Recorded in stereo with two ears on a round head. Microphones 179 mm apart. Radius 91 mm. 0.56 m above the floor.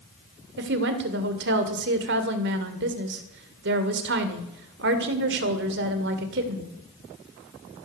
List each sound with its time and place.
0.6 s a woman speaking: 60° right (ahead or behind), 2 m